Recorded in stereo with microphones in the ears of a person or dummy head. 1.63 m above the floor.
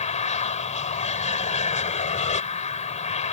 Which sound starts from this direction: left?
An aircraft, at 0.0 s.